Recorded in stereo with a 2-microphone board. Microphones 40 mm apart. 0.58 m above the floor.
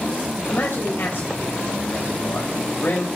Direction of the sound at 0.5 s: 55° left (ahead or behind).